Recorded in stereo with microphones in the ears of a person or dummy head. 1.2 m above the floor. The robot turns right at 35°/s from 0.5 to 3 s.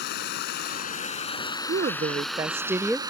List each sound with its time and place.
0.0 s running water: 120° left; by 3.1 s 155° right
1.7 s a woman speaking: 45° right; by 3.0 s straight ahead